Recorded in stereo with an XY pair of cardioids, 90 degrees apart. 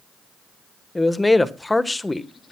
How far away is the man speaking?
About 1.4 m.